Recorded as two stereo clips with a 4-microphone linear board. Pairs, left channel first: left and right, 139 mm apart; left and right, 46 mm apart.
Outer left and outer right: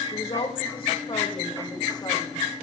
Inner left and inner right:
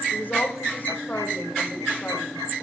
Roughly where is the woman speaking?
Left.